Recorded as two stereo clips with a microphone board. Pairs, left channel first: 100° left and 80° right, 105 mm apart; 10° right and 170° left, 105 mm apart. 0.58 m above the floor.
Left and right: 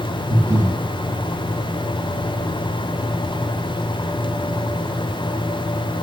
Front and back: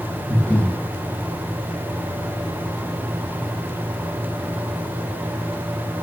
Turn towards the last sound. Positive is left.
turn(degrees=-70)